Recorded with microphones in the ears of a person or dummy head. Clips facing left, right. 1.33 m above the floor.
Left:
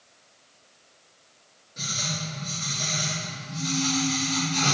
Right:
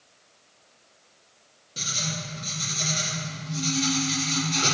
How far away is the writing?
About 2.5 m.